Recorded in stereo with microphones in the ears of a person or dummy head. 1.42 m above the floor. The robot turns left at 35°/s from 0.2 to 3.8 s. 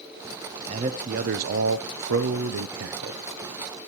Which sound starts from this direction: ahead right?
A man speaking, at 0.7 s.